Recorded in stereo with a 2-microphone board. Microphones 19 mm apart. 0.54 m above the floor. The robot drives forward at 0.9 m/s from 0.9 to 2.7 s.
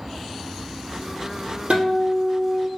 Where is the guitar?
70° right (ahead or behind), 2.5 m; by 2.7 s 55° right (ahead or behind), 3 m.